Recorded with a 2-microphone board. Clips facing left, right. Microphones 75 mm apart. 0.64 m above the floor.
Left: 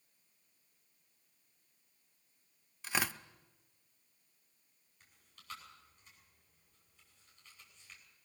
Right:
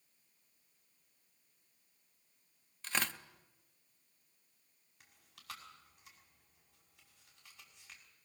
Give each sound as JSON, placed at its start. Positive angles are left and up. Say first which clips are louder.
{"t": 2.8, "sound": "tearing paper", "louder": "left 2 dB", "side_deg": 5, "distance_m": 0.7}
{"t": 5.0, "sound": "chewing", "louder": "right 5 dB", "side_deg": -75, "distance_m": 5.5}